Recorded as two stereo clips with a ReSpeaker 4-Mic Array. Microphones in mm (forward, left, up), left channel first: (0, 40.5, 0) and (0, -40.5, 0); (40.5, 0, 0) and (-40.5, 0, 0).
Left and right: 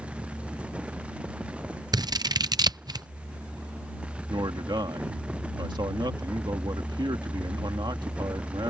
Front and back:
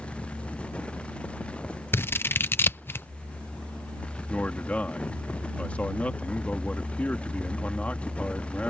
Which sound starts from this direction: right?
A man speaking, at 4.3 s.